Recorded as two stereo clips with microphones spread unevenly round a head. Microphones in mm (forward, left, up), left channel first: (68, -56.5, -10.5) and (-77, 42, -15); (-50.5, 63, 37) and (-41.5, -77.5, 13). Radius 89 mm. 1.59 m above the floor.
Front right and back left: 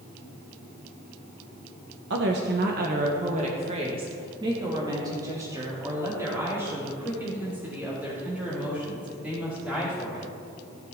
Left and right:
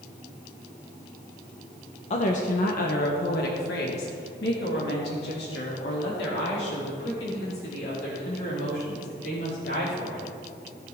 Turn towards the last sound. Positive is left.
turn(degrees=60)